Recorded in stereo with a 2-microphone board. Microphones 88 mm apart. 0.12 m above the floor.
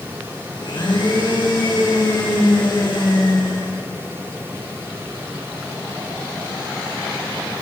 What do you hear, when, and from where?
0.6 s a blender: 60° left (ahead or behind), 7 m